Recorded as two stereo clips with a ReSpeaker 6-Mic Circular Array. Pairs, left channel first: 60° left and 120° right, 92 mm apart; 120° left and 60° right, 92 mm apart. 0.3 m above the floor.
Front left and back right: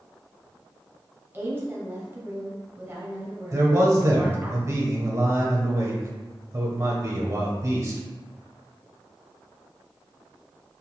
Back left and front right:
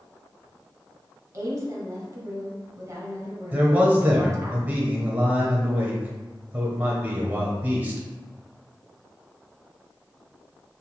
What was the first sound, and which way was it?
A woman speaking, 70° right.